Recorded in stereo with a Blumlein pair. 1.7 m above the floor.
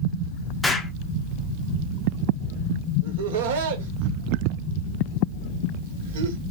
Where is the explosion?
10° left, 0.7 m.